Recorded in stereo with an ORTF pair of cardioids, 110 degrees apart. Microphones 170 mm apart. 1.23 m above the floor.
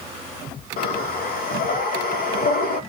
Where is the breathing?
65° left, 1.3 m.